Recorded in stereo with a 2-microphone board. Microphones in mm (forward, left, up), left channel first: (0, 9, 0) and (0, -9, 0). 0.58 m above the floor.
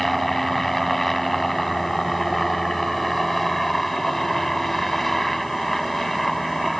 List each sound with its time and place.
0.0 s a helicopter: 10° left (ahead or behind)